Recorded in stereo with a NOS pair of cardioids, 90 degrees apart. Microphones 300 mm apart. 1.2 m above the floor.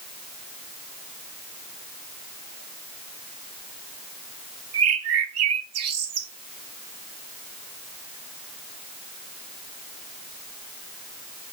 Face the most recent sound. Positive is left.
turn(degrees=-60)